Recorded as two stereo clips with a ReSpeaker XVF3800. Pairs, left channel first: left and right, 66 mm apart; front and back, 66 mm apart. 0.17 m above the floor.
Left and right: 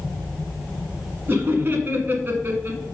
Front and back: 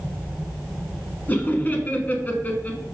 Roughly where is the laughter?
Ahead right.